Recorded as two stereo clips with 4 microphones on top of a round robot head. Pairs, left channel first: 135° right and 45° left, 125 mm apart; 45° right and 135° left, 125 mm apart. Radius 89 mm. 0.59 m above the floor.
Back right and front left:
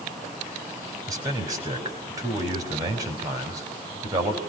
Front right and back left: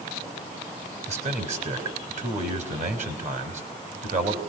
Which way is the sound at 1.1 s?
110° left.